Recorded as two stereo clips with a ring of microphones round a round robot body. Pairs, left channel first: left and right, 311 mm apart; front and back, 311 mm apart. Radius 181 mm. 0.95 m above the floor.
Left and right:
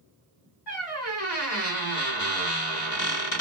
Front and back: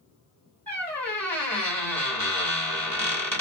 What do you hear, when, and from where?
0.7 s a squeak: 85° left, 1.8 m